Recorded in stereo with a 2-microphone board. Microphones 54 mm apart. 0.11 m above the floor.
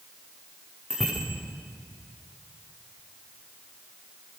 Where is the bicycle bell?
5° left (ahead or behind), 8.5 m.